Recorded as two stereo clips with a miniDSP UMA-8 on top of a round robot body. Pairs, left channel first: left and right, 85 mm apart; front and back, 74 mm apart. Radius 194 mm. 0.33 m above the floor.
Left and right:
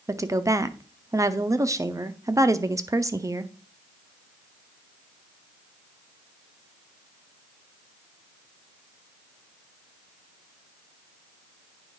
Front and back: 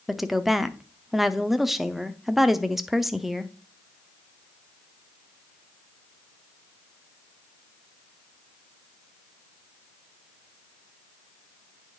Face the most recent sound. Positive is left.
turn(degrees=-95)